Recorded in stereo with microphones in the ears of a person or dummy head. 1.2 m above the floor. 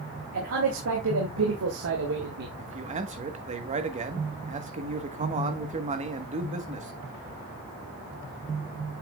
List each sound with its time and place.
0.3 s a man speaking: 75° right (ahead or behind), 3 m; by 2.5 s 50° right (ahead or behind), 1.5 m
2.6 s a man speaking: 35° right (ahead or behind), 1.3 m